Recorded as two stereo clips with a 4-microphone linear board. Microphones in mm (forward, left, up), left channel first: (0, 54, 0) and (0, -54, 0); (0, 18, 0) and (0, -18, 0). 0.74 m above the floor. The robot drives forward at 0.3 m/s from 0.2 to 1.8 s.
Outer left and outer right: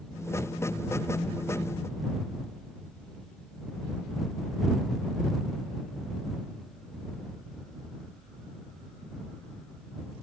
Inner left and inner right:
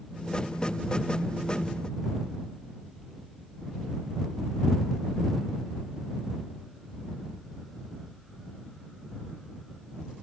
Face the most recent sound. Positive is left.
No sound to turn to.